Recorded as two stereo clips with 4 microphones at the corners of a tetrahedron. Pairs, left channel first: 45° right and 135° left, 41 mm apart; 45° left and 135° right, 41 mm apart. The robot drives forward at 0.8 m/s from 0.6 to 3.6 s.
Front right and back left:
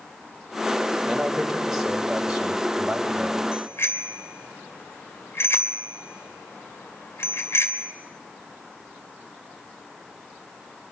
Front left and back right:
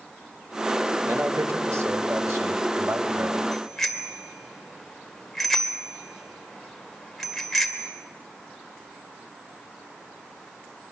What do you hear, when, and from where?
1.1 s a man speaking: 135° right, 2.5 m; by 3.4 s 155° right, 4 m
3.5 s a bicycle bell: 40° right, 2 m